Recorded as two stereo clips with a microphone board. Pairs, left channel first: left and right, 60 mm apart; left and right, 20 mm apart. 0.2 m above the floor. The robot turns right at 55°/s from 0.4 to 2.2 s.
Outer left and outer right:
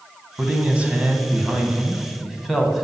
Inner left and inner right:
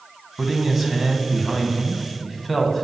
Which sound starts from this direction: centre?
A man speaking, at 0.4 s.